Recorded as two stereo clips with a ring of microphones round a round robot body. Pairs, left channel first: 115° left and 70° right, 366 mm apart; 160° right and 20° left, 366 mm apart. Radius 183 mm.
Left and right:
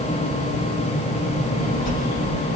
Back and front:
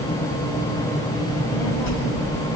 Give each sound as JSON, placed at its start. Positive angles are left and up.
{"t": 1.2, "sound": "a child speaking", "azimuth_deg": -175, "distance_m": 6.5}